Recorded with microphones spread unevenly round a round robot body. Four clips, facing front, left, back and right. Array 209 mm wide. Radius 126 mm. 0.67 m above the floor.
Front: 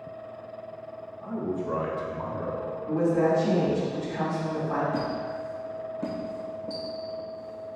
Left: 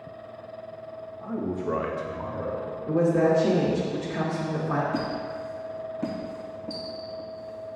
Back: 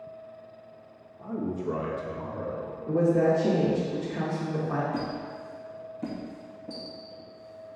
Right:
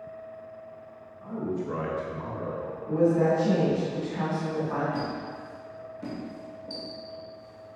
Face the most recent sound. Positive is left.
turn(degrees=25)